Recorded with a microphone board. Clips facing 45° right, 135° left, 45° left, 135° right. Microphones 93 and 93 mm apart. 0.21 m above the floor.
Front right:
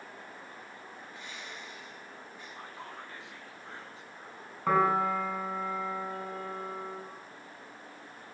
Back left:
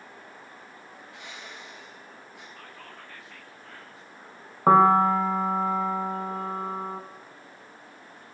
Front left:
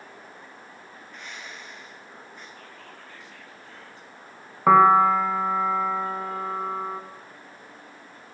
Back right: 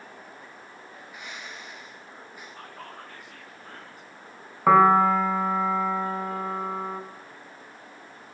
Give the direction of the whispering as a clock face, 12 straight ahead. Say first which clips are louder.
Front right 2 dB, back right 3 dB; 4 o'clock.